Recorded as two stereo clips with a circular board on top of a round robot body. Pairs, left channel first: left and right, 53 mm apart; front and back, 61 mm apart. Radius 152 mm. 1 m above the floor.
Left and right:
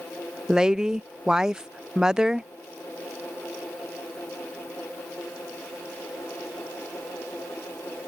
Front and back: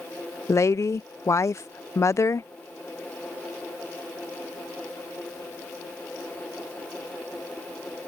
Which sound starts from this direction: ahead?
A woman speaking, at 0.5 s.